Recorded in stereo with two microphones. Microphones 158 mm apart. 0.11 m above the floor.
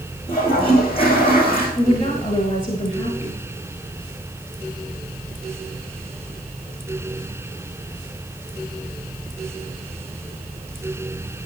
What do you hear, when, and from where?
0.3 s a toilet flushing: 35° left (ahead or behind), 5.5 m
1.8 s a woman speaking: 30° left (ahead or behind), 1.5 m